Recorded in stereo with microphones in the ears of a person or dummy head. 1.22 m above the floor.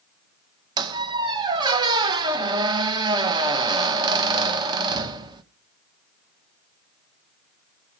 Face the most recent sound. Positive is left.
turn(degrees=-20)  # may be behind; listen again after turning